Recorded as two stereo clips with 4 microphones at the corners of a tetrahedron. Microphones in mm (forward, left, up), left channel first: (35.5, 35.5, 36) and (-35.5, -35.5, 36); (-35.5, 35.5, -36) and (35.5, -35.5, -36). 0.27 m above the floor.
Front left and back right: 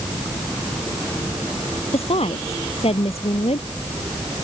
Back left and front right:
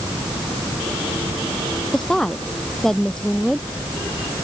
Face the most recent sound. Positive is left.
turn(degrees=50)